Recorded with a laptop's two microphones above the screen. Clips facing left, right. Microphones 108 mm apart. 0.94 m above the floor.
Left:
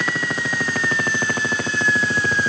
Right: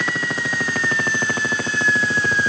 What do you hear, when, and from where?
Only background noise.